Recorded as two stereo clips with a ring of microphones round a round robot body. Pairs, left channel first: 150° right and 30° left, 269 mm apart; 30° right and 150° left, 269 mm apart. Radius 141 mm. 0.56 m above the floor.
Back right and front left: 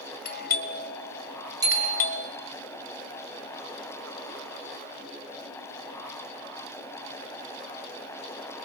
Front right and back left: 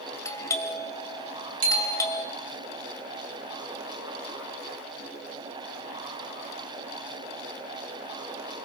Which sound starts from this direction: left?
A bicycle bell, at 1.6 s.